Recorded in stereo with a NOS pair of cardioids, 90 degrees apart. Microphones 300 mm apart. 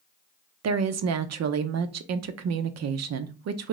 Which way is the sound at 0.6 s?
60° right.